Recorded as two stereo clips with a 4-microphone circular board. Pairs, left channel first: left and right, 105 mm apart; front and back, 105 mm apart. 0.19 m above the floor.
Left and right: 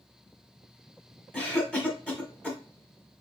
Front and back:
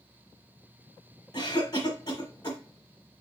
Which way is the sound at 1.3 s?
10° left.